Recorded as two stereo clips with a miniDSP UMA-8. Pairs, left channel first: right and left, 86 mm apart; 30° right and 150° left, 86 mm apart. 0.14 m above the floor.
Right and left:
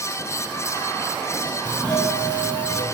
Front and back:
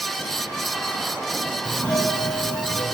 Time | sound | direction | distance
1.6 | a doorbell | 85° right | 2 m